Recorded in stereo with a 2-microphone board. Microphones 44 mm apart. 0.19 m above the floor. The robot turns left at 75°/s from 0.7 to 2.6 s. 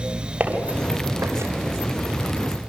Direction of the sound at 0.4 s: 35° right (ahead or behind).